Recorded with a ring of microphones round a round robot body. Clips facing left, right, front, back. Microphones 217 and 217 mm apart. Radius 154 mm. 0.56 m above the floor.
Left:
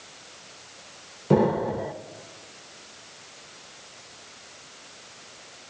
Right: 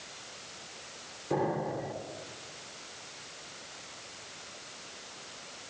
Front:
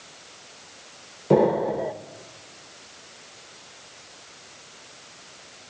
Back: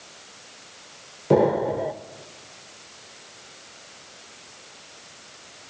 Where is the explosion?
90° left, 1.1 m.